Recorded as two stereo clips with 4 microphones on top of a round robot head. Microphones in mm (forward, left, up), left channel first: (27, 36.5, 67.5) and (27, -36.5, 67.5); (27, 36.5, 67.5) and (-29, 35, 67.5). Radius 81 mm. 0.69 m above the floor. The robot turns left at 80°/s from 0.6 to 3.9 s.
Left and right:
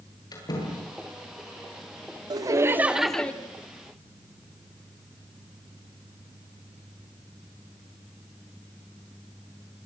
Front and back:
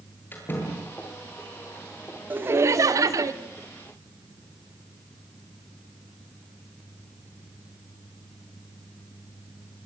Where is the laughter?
120° right, 2 m; by 3.3 s 160° left, 2 m.